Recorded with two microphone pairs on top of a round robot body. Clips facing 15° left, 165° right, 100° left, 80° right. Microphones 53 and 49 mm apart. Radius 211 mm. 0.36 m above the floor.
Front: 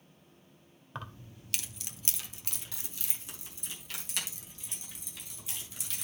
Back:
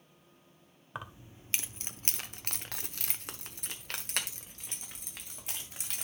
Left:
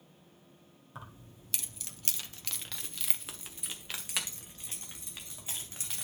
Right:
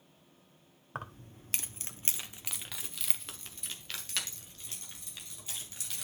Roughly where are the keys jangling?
Right.